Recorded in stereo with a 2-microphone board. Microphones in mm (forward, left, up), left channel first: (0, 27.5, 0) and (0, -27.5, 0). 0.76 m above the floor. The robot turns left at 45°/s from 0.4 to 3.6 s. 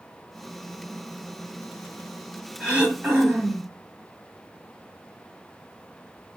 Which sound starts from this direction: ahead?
Throat clearing, at 2.6 s.